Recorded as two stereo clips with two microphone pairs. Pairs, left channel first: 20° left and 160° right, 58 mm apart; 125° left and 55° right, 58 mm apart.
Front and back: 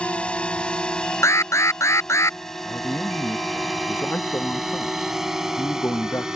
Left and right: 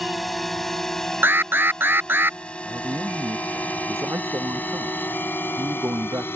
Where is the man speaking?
25° right.